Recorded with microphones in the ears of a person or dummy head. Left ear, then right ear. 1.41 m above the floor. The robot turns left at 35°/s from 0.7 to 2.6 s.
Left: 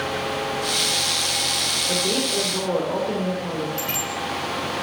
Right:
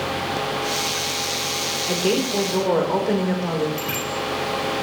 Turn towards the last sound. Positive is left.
turn(degrees=10)  # may be behind; listen again after turning